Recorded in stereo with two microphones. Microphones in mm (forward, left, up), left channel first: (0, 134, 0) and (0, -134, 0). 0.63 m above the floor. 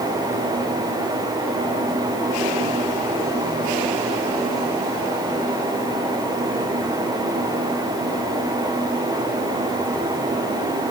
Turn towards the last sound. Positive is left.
No sound to turn to.